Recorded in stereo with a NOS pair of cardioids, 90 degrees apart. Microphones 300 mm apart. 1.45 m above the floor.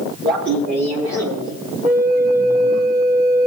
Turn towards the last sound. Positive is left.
turn(degrees=-30)